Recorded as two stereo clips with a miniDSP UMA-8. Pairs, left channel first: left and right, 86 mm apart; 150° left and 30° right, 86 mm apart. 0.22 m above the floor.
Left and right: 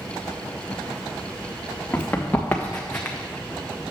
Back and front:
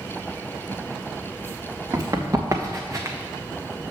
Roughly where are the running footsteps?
Ahead.